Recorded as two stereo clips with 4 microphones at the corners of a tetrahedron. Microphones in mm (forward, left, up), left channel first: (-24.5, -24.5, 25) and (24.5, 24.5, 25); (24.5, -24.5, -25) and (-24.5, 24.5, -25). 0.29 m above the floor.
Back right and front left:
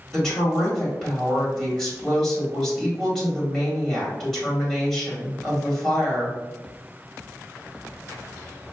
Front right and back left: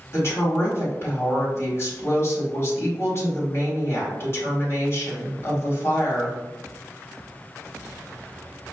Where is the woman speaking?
55° right, 1.9 m.